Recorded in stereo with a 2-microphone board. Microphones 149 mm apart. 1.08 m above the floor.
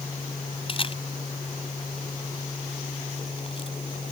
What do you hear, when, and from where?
0.7 s a camera shutter: 40° left (ahead or behind)